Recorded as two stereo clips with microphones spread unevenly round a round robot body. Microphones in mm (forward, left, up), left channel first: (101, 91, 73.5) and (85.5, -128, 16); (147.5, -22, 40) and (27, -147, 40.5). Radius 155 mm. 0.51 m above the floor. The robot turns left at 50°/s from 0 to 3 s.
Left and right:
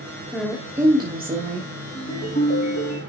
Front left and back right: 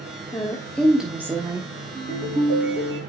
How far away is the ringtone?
About 2 m.